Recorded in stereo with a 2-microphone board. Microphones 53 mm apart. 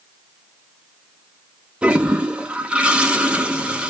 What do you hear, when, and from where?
1.8 s a toilet flushing: 15° right (ahead or behind), 0.7 m